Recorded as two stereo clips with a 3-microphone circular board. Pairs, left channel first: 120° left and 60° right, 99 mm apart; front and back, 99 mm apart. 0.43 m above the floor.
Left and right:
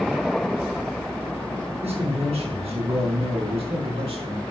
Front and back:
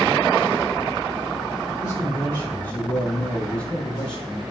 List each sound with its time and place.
1.8 s a man speaking: 70° right, 5.5 m; by 4.4 s 85° right, 5.5 m